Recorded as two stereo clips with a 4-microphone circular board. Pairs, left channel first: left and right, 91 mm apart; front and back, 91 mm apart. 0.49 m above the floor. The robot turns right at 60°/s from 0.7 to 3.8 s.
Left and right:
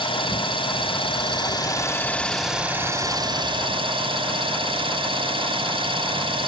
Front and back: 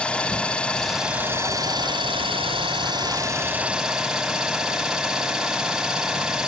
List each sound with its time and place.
0.0 s an engine running: 80° left, 2 m; by 6.5 s 95° right, 2 m